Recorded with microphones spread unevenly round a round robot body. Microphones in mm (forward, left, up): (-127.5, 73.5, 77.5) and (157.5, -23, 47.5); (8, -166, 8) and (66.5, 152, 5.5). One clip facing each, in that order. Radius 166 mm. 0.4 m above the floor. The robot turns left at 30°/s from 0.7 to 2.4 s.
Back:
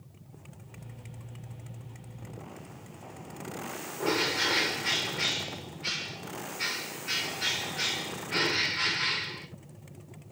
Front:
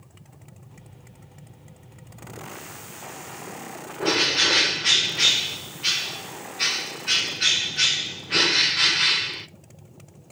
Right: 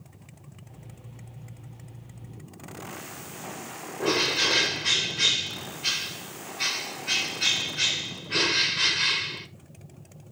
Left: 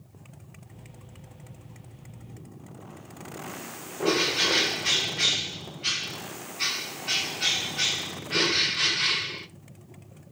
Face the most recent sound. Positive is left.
turn(degrees=-10)